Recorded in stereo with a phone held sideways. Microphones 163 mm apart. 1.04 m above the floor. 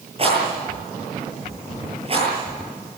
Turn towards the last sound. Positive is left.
turn(degrees=-35)  # may be behind; listen again after turning